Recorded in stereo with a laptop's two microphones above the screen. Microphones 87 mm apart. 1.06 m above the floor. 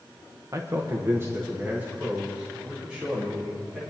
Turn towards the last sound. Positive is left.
turn(degrees=-10)  # may be behind; listen again after turning